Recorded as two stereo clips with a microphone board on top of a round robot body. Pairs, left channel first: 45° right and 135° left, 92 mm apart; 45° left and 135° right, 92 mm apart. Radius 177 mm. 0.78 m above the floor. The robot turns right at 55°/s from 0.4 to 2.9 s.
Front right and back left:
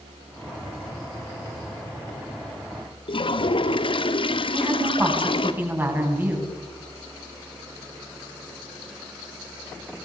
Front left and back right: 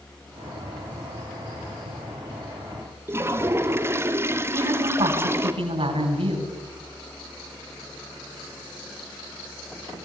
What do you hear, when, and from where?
3.1 s a toilet flushing: 70° right, 1.9 m
4.5 s a woman speaking: 155° right, 10 m